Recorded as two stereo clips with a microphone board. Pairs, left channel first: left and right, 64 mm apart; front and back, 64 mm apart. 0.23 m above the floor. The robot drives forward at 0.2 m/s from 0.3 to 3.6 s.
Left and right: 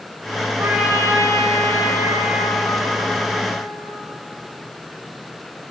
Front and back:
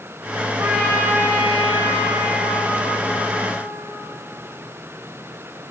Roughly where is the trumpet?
Behind right.